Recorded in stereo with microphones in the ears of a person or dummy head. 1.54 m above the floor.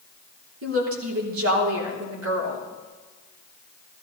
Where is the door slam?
No door slam in this recording.